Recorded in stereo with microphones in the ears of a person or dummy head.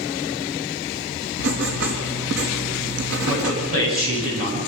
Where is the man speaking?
50° right (ahead or behind), 9.5 m.